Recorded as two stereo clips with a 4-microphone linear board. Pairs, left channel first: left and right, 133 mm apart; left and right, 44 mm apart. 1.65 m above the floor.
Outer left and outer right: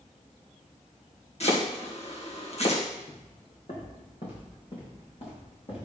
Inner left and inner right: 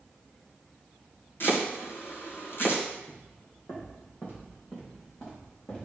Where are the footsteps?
65° left (ahead or behind), 4.5 m; by 5.9 s 50° left (ahead or behind), 6.5 m.